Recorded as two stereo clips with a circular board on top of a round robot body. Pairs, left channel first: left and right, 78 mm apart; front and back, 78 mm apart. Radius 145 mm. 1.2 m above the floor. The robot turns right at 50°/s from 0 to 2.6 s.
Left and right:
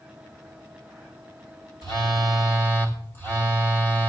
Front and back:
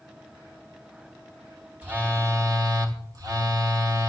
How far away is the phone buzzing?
About 1.9 m.